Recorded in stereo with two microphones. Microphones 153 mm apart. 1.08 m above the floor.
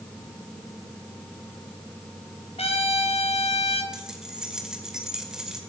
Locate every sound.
2.6 s a trumpet: 40° left (ahead or behind), 3.5 m
3.9 s keys jangling: 5° right (ahead or behind), 2.5 m